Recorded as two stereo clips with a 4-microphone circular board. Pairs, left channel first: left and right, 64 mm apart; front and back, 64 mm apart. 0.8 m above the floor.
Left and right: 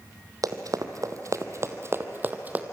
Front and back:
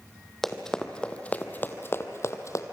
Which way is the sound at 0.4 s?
85° right.